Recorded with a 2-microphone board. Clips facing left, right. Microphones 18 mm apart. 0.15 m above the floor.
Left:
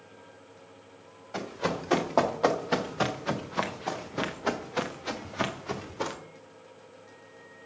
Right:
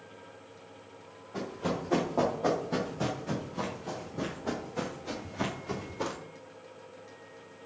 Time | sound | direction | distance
1.3 | running footsteps | 70° left (ahead or behind) | 2 m